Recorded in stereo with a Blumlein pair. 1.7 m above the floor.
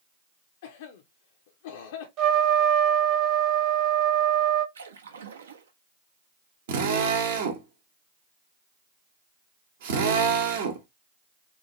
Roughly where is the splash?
Ahead right.